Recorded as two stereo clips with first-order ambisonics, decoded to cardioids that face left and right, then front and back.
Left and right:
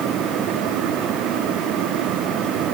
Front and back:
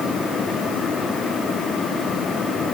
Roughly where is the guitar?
I don't hear a guitar.